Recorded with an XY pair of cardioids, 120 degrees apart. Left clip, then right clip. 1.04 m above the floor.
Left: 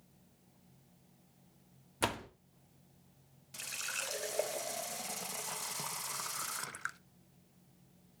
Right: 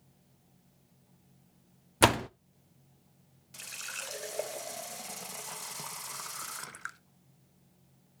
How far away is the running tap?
About 0.6 m.